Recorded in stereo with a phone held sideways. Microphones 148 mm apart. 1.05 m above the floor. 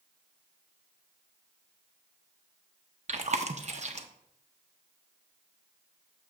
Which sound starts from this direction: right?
Chewing, at 3.1 s.